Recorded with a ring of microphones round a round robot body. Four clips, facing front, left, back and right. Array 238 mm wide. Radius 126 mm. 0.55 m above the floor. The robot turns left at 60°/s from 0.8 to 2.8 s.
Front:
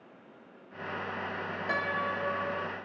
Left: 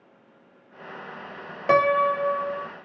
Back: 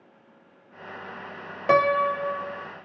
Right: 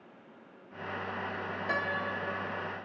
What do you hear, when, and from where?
1.7 s a piano: 135° left; by 2.7 s 75° left